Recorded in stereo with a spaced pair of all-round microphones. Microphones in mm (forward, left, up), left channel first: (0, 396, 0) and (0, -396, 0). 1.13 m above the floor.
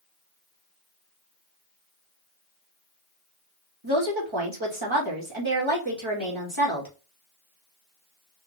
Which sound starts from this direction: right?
A woman speaking, at 3.8 s.